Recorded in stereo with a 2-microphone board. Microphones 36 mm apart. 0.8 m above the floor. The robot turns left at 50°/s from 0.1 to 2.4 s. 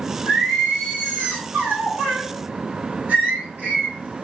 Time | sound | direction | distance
0.3 | singing | 30° right | 1.3 m